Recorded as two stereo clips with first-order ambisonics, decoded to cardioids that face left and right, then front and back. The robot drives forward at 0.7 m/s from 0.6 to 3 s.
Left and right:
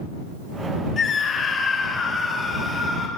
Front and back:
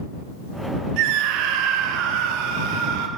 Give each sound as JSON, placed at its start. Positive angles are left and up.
{"t": 1.0, "sound": "a scream", "azimuth_deg": 155, "distance_m": 1.6}